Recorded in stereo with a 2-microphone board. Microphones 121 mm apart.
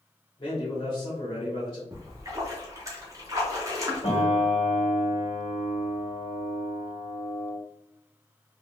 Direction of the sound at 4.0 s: 50° left (ahead or behind).